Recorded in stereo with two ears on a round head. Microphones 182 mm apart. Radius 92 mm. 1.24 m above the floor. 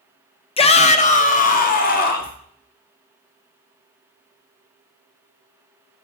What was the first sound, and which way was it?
A shout, 30° left (ahead or behind).